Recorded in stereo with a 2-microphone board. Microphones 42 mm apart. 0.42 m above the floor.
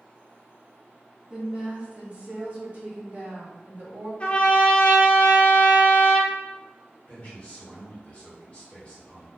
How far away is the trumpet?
About 0.5 m.